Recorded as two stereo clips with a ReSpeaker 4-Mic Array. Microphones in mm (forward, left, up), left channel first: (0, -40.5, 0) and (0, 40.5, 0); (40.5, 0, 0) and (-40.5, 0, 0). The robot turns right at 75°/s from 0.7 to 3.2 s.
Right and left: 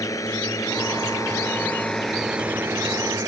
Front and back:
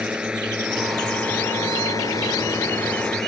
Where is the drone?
105° right; by 3.3 s 80° left.